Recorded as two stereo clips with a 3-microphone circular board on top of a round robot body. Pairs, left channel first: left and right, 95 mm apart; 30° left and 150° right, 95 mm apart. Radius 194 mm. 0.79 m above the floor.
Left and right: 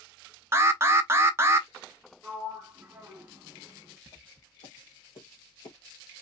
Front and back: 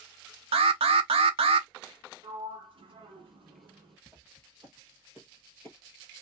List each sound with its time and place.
0.5 s an alarm: 155° right, 0.6 m
2.2 s a sliding door: 170° right, 1.4 m
4.1 s footsteps: 130° left, 1.9 m; by 5.8 s 125° left, 1.0 m